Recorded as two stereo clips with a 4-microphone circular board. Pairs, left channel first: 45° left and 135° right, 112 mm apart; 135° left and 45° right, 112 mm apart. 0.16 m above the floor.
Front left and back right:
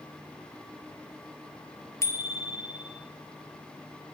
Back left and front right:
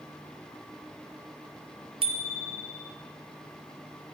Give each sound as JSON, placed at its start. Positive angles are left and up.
{"t": 2.0, "sound": "a bicycle bell", "azimuth_deg": -15, "distance_m": 2.0}